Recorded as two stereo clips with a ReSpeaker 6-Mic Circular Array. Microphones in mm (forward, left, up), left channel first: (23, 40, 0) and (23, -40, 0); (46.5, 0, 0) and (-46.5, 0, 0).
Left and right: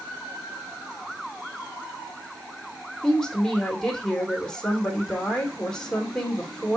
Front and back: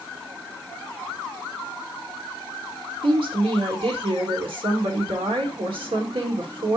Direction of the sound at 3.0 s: 170° left.